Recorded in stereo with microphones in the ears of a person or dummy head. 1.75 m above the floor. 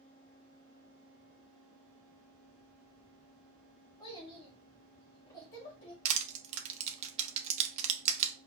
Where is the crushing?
40° right (ahead or behind), 0.6 m.